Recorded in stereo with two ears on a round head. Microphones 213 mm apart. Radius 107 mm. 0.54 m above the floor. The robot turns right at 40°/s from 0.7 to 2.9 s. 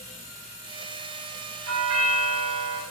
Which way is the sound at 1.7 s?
100° right.